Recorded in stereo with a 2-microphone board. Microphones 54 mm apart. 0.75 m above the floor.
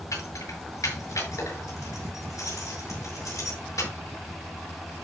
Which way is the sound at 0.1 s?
80° left.